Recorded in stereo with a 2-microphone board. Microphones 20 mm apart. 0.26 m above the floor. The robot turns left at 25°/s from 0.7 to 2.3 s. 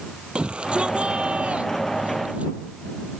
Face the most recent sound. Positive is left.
turn(degrees=-90)